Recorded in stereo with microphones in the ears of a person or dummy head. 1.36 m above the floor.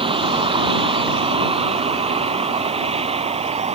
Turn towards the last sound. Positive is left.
turn(degrees=-25)  # may be behind; listen again after turning